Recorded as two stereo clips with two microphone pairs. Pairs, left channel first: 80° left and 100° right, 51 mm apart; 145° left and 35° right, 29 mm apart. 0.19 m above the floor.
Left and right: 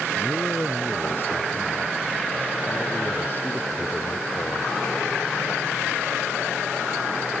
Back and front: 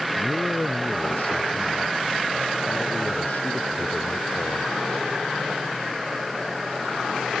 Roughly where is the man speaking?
Behind left.